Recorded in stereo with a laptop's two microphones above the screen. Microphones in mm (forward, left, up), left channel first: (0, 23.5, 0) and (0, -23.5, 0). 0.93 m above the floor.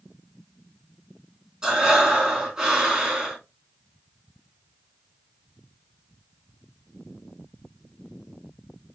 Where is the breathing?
15° right (ahead or behind), 2.5 m.